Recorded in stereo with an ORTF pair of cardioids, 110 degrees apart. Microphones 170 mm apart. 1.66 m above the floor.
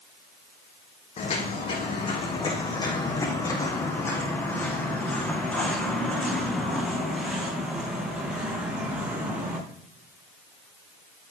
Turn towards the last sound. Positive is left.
turn(degrees=-10)